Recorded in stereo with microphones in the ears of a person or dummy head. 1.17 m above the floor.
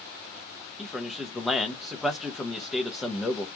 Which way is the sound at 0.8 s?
Centre (ahead or behind).